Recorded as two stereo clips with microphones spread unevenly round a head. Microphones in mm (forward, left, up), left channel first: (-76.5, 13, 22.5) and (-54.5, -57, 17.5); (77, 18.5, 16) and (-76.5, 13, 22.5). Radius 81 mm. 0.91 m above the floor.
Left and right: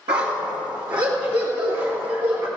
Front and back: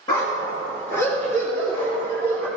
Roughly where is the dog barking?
Ahead right.